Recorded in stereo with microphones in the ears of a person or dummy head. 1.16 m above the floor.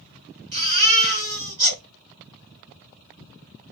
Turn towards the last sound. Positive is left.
turn(degrees=-35)  # may be behind; listen again after turning